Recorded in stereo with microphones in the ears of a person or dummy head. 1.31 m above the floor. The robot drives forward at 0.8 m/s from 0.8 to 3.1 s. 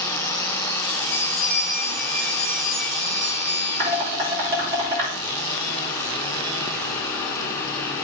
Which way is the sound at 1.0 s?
15° left (ahead or behind).